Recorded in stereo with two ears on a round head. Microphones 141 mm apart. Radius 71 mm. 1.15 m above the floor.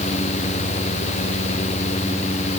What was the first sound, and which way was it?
Only background noise.